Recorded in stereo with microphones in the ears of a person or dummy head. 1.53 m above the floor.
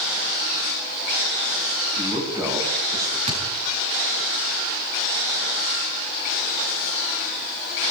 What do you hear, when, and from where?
2.0 s a man speaking: 15° right (ahead or behind), 9 m
3.3 s a thud: 30° right (ahead or behind), 7 m